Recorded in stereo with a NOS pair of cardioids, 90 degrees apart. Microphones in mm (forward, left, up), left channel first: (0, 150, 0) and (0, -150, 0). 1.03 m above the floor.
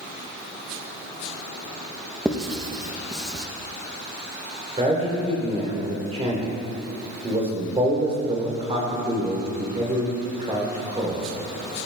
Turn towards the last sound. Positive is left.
turn(degrees=-20)